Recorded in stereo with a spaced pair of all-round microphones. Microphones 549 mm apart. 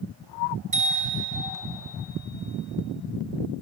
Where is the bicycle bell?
35° right (ahead or behind), 6 m.